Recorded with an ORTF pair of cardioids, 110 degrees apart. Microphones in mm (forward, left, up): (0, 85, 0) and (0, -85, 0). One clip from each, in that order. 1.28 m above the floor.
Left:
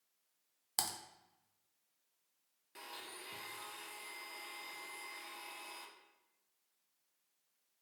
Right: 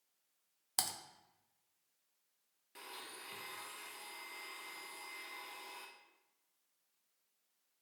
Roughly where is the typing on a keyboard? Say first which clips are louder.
Even; ahead.